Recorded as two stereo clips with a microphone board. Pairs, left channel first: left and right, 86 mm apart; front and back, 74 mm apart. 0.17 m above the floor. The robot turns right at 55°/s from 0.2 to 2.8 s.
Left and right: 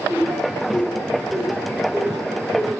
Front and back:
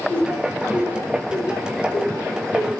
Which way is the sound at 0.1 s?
75° left.